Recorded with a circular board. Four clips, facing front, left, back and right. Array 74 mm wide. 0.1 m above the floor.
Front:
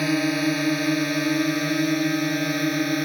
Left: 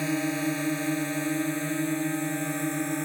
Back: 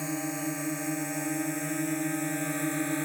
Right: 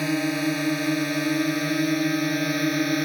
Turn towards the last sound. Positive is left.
turn(degrees=-50)